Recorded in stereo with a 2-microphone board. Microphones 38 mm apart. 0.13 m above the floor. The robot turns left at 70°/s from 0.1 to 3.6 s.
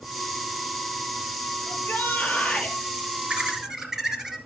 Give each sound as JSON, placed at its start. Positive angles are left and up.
{"t": 1.7, "sound": "a shout", "azimuth_deg": 90, "distance_m": 3.0}
{"t": 3.3, "sound": "laughter", "side_deg": -30, "distance_m": 2.5}